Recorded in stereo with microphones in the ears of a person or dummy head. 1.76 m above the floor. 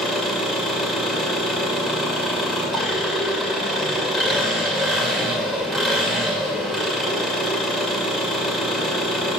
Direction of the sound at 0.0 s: Centre (ahead or behind).